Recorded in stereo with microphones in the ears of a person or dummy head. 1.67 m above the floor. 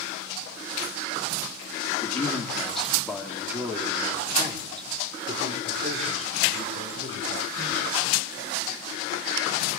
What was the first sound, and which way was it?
A man speaking, 15° left (ahead or behind).